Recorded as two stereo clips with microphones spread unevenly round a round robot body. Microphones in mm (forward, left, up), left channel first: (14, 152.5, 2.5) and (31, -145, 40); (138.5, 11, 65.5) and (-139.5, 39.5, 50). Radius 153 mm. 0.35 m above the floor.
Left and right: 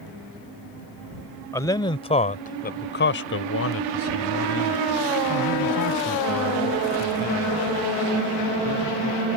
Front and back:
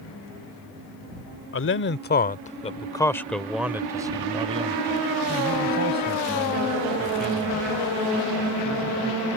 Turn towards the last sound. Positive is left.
turn(degrees=135)